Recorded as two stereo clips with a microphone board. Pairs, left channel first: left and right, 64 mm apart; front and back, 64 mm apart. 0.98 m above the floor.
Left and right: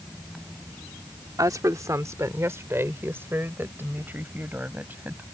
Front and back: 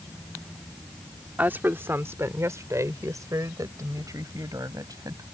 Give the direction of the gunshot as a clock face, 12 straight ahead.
I don't hear a gunshot.